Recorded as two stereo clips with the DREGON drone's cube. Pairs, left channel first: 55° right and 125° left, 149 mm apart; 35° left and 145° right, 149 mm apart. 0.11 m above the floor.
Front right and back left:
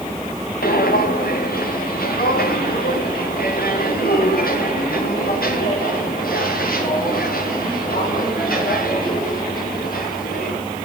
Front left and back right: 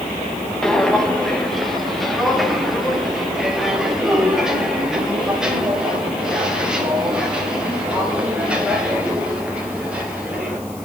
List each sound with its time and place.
0.6 s footsteps: 55° right, 3 m; by 10.6 s 65° right, 9 m